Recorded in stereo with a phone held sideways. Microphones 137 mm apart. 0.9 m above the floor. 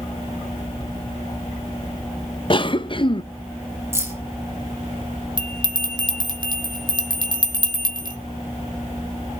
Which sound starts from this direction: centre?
Keys jangling, at 3.9 s.